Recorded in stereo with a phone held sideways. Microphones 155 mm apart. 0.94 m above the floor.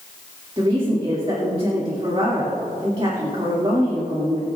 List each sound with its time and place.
0.6 s a woman speaking: 35° right (ahead or behind), 2.5 m